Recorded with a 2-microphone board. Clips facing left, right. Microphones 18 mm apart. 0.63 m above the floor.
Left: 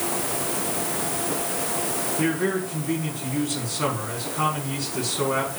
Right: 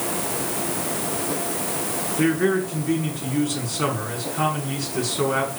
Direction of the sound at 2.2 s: 10° right (ahead or behind).